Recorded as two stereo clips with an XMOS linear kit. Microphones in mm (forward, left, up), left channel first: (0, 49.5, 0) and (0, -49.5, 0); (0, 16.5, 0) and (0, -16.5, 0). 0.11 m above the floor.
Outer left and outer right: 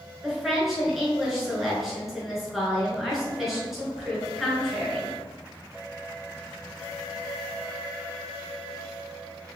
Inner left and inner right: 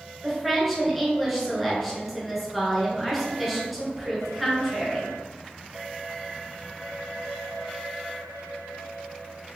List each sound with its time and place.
0.2 s a woman speaking: centre (ahead or behind), 1.2 m